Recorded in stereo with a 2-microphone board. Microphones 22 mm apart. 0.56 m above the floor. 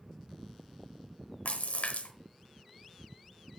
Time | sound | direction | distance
1.4 | a splash | 75° left (ahead or behind) | 0.9 m